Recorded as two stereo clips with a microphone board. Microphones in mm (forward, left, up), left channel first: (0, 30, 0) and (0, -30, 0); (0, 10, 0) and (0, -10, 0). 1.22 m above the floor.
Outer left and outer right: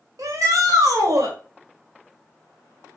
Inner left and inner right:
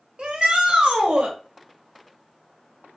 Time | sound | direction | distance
0.2 | a shout | 70° right (ahead or behind) | 1.2 m